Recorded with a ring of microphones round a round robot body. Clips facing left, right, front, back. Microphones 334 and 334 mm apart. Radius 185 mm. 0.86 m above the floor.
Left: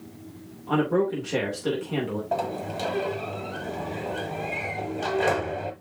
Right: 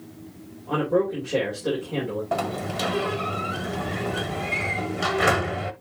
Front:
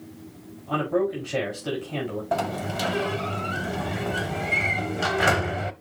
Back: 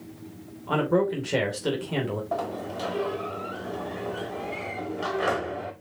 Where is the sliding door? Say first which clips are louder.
Right 1 dB, front 3 dB; 35° right, 0.9 m.